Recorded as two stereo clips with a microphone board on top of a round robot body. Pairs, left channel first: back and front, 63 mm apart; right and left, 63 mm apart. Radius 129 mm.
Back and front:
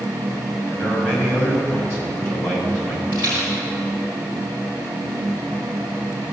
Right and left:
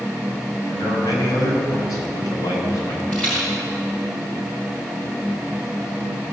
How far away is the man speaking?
About 5 m.